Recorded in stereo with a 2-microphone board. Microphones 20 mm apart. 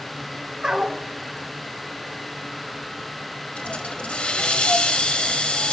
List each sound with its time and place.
0.6 s a dog barking: 35° right (ahead or behind), 2.5 m
3.5 s a hiss: 85° left, 1.5 m